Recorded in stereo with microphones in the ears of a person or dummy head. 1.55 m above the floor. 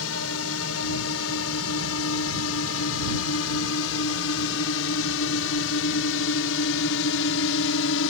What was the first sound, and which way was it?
A drone, 75° left (ahead or behind).